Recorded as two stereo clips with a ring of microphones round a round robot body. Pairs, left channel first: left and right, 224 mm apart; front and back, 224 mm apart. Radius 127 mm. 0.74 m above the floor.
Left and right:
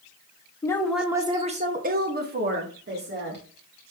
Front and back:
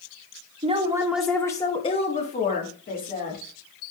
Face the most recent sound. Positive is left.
turn(degrees=-50)